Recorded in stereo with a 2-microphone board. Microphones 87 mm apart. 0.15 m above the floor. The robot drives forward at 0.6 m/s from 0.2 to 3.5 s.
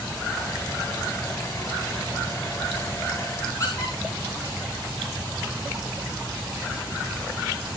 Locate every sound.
3.6 s a squeak: 35° left (ahead or behind), 4 m